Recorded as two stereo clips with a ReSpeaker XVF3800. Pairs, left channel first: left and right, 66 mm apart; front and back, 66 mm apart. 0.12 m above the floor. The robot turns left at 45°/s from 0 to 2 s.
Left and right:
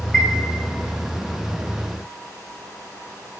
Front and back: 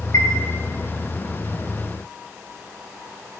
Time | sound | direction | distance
0.1 | a chime | straight ahead | 1.8 m